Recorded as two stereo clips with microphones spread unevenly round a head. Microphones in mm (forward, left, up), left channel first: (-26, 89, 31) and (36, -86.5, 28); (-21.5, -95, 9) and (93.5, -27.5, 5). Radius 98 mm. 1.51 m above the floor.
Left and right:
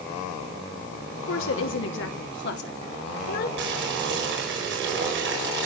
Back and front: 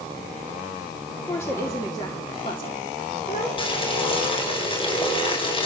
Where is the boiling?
100° right, 5.5 m.